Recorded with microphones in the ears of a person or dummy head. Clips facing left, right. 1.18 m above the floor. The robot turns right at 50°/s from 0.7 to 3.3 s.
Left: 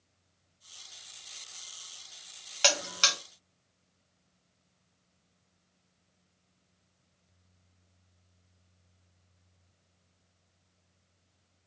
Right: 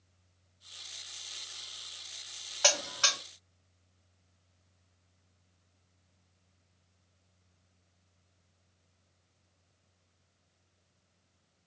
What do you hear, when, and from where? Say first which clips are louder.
2.6 s a buzzer: left 1 dB; 40° left (ahead or behind), 0.8 m